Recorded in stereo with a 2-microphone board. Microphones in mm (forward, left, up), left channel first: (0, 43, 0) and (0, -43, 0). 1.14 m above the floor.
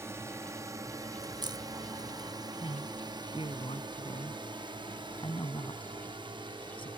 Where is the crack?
55° right (ahead or behind).